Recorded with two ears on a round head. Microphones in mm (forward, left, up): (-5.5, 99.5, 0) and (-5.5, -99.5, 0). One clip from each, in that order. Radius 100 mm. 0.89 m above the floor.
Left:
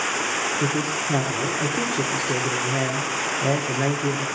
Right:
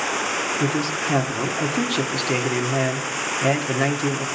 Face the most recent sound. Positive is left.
turn(degrees=-80)